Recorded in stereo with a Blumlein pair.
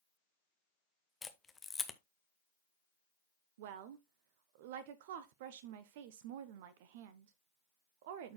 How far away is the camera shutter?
About 0.9 m.